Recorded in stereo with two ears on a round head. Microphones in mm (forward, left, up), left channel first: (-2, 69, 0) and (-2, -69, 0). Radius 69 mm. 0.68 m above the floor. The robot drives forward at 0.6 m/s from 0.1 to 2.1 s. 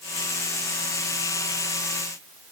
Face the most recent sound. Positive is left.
No sound to turn to.